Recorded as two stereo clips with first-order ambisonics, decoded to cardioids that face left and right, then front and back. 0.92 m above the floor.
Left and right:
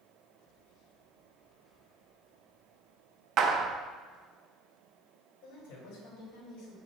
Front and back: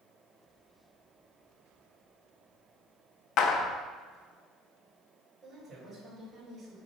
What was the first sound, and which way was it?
A clap, 35° right.